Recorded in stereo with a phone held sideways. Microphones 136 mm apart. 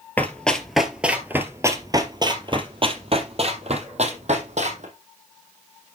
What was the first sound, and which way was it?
Running footsteps, 10° left (ahead or behind).